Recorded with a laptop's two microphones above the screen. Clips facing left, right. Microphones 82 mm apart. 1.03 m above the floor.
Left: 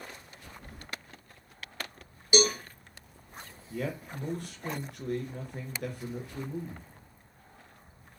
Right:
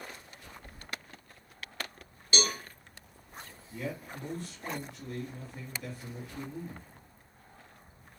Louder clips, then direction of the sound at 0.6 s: Left 3 dB; 65° left (ahead or behind).